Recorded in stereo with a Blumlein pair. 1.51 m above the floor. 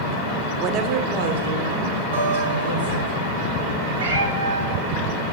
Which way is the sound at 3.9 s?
55° right.